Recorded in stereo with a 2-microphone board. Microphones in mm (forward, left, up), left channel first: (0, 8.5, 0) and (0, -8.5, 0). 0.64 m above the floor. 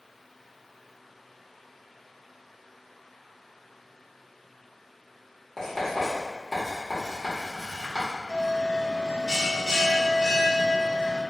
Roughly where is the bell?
Left.